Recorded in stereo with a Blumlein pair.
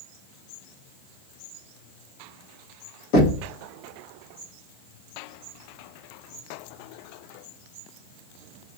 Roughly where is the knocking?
Ahead left.